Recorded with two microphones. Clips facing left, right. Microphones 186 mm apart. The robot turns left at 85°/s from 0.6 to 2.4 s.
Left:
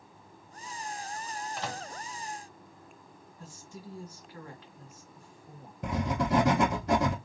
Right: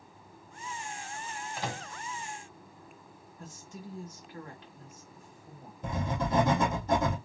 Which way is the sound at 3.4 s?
20° right (ahead or behind).